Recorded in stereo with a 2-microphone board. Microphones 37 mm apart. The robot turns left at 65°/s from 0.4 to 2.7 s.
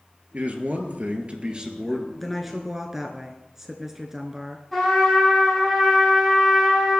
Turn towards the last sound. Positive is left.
turn(degrees=5)  # may be behind; listen again after turning